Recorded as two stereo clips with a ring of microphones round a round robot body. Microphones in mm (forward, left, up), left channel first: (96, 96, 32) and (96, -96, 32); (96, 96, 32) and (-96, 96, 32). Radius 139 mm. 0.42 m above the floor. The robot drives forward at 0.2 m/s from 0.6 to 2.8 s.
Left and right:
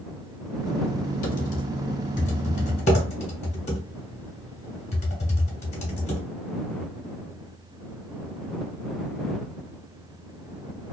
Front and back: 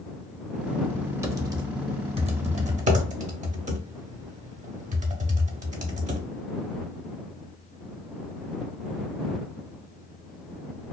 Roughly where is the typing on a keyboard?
Left.